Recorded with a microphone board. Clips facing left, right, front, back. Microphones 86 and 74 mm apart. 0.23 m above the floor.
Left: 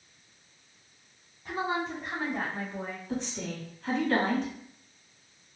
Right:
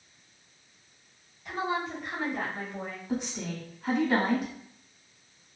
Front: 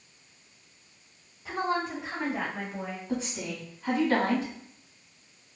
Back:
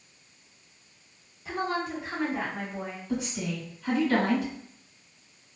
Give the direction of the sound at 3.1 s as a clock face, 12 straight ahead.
1 o'clock.